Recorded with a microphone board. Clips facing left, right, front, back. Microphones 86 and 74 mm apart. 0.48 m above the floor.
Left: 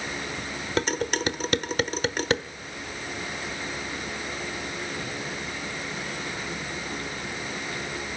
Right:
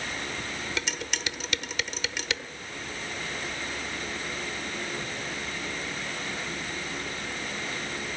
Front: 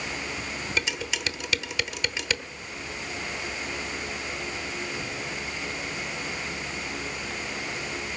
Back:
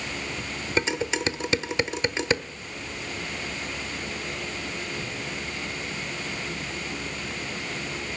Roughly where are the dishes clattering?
Behind left.